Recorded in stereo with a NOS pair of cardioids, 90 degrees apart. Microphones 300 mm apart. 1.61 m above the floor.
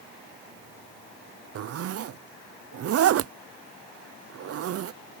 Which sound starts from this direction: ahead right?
A zipper, at 1.6 s.